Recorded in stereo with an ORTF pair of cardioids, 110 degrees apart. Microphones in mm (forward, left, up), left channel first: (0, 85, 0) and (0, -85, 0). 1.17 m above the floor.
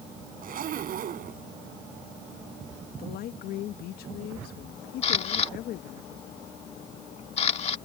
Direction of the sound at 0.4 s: 55° right.